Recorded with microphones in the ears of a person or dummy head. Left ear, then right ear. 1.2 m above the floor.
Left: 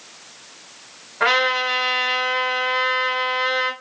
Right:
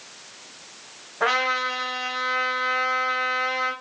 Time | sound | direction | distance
1.2 | a trumpet | 40° left (ahead or behind) | 1.2 m